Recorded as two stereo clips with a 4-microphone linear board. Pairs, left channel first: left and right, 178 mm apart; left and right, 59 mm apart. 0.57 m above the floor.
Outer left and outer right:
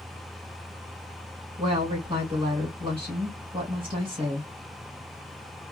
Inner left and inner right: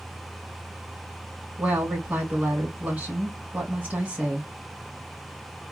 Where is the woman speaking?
30° right (ahead or behind), 2 m.